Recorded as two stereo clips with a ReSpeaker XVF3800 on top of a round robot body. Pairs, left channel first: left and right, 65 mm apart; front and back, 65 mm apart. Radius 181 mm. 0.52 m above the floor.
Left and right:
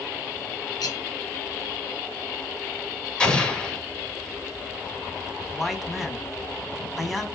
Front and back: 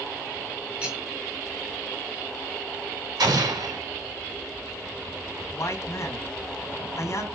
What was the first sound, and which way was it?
Cutlery clinking, 105° left.